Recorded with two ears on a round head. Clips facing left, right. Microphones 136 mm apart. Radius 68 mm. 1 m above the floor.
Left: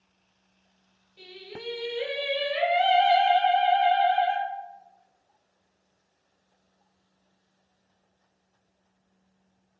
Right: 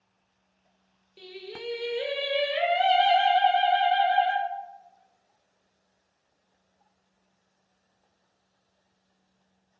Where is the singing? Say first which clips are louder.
Right 2 dB; 45° right (ahead or behind), 1.0 m.